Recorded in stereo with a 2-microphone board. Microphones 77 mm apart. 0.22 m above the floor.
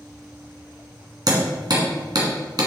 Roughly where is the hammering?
Right.